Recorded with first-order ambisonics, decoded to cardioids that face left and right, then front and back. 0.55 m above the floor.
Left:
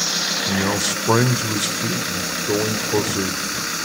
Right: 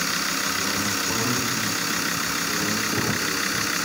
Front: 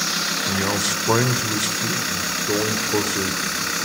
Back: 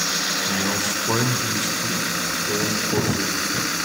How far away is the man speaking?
About 2 m.